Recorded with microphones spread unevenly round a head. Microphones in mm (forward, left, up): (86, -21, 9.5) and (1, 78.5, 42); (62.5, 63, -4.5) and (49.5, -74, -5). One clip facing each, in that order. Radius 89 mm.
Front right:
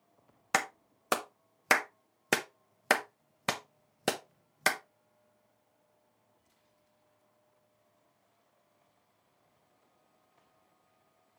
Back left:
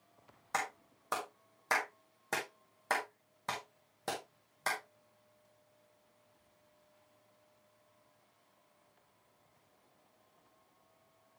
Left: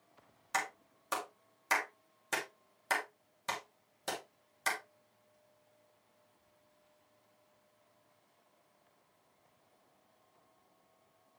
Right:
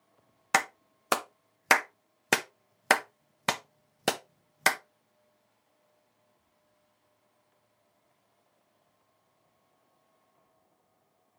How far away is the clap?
About 0.7 m.